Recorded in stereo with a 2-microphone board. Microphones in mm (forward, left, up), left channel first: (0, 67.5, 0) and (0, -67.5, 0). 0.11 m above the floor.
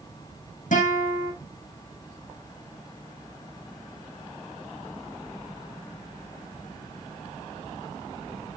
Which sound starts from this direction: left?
A guitar, at 0.7 s.